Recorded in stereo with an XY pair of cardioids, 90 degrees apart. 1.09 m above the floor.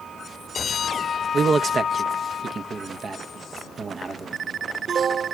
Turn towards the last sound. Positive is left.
turn(degrees=-45)